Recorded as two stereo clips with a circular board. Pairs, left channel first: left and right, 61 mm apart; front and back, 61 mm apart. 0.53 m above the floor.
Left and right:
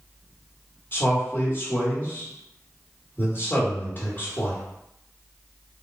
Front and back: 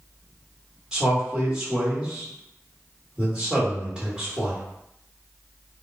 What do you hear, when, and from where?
0.9 s a man speaking: 110° left, 1.6 m